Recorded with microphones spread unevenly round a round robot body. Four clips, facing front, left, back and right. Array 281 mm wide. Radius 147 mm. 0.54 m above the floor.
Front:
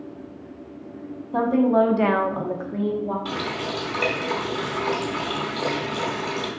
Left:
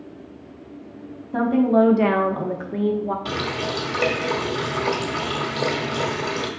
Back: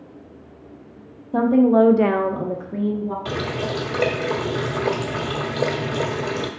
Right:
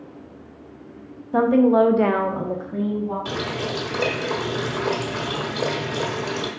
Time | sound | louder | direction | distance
1.3 | a woman speaking | right 2 dB, back 3 dB | 135° right | 1.1 m
3.2 | a running tap | left 1 dB, back 3 dB | 175° left | 0.8 m